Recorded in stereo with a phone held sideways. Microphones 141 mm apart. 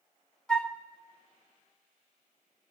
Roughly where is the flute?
Centre.